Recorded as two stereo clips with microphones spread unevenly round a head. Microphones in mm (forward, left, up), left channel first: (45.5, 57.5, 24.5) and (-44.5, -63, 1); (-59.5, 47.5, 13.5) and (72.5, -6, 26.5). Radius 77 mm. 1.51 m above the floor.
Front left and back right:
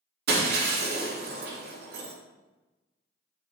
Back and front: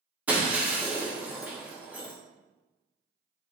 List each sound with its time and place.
0.3 s breaking glass: 100° right, 1.7 m